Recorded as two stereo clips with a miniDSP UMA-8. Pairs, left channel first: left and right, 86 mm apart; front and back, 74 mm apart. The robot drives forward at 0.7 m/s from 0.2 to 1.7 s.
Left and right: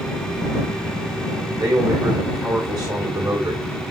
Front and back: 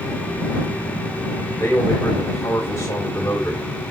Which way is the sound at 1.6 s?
55° right.